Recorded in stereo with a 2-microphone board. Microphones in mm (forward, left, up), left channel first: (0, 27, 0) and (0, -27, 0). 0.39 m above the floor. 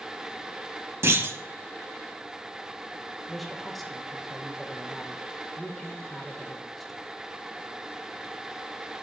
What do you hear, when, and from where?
1.0 s a clunk: 50° right (ahead or behind), 0.6 m
3.3 s a man speaking: centre (ahead or behind), 0.9 m